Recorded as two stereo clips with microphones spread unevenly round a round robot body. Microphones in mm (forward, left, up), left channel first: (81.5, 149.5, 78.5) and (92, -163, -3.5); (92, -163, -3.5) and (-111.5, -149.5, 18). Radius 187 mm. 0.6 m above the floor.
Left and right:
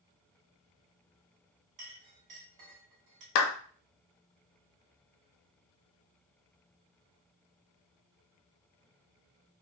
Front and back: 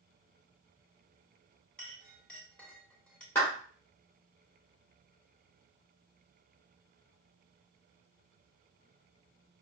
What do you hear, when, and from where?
1.8 s a clink: 90° right, 1.6 m
3.4 s a clap: 75° left, 0.8 m